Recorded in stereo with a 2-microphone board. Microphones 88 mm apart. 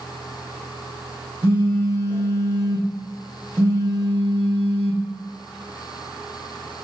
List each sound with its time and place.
1.4 s a phone buzzing: 20° right (ahead or behind), 5 m